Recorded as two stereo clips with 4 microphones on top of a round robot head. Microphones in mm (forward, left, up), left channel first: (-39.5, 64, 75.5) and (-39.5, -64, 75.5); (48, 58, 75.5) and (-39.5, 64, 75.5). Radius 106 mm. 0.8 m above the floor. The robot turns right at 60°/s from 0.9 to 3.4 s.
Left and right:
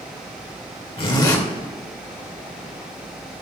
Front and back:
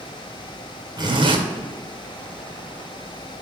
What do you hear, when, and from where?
1.0 s a zipper: 135° left, 1.7 m; by 1.4 s 160° left, 1.7 m